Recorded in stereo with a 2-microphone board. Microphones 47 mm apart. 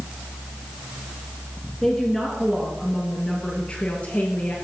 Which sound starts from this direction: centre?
A woman speaking, at 1.8 s.